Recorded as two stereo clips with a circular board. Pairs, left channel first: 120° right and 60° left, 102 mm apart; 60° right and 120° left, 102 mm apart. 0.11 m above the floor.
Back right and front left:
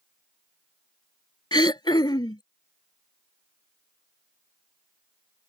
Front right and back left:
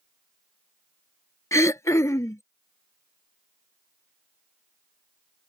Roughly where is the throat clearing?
Right.